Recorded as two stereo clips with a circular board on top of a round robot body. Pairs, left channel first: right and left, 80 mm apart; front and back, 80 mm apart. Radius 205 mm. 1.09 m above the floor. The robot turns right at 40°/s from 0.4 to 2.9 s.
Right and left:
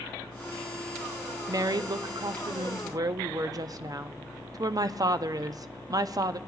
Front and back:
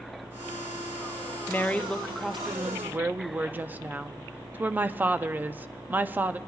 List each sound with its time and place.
1.5 s a woman speaking: 60° left, 0.6 m; by 6.4 s 120° left, 0.6 m